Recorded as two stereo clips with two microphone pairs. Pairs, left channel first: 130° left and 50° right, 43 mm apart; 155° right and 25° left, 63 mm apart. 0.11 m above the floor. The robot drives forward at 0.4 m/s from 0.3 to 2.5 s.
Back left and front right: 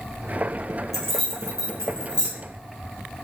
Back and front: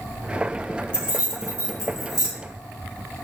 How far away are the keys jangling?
About 1.2 m.